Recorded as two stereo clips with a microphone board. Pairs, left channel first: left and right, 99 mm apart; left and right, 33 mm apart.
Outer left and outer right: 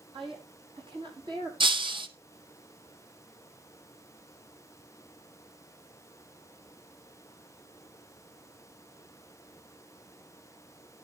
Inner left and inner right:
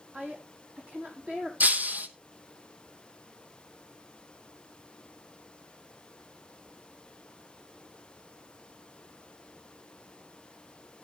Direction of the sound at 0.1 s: 55° right (ahead or behind).